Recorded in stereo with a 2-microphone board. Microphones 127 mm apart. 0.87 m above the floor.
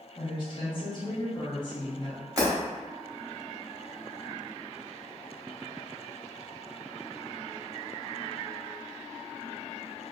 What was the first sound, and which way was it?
A woman speaking, 35° left (ahead or behind).